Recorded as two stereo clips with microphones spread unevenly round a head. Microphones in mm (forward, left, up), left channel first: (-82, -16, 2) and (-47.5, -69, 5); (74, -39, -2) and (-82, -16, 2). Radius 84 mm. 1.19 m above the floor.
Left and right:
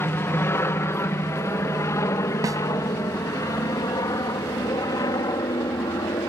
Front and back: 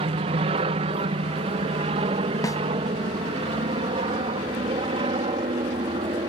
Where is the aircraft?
140° left; by 6.3 s 110° left.